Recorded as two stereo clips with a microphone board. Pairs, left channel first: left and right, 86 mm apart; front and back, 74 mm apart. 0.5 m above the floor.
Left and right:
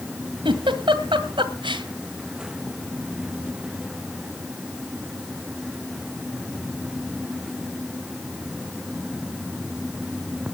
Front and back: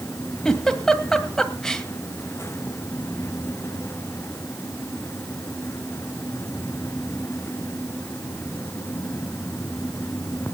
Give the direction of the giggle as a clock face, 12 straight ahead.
3 o'clock.